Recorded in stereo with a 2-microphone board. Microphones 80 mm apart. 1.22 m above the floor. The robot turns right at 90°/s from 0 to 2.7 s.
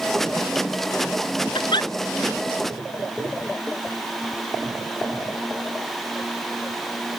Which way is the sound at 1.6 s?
85° left.